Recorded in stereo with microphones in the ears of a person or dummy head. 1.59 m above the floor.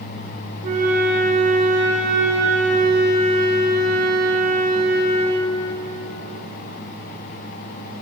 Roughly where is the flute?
Right.